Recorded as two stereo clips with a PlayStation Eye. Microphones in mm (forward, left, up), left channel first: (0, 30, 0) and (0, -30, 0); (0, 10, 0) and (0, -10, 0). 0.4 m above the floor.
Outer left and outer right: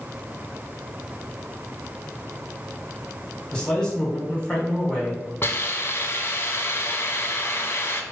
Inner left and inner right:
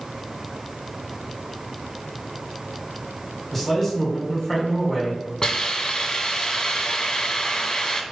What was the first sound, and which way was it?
A man speaking, 15° left (ahead or behind).